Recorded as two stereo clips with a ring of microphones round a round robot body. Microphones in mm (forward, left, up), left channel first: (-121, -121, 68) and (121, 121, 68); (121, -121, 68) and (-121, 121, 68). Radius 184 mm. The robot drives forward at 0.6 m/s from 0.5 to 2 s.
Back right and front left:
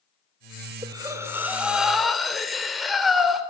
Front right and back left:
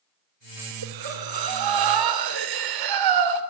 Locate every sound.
0.8 s breathing: 125° left, 2.5 m; by 3.4 s 135° left, 3 m